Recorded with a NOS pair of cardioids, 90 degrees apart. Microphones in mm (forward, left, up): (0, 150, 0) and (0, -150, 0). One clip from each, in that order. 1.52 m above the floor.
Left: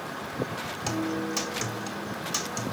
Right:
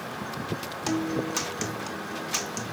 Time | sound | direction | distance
0.9 | a guitar | 15° right | 1.8 m